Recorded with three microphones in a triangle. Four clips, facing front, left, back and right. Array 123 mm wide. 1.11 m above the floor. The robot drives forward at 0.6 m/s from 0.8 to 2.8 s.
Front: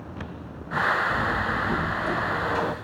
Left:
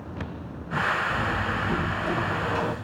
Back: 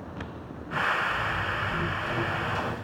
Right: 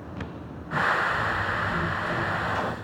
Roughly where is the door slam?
Ahead left.